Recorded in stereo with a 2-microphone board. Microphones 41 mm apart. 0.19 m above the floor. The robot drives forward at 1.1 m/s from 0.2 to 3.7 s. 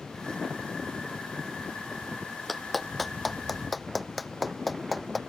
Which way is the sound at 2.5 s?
Centre (ahead or behind).